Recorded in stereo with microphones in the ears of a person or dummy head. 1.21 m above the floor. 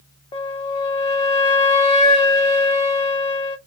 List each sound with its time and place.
0.3 s a flute: 25° left (ahead or behind), 0.6 m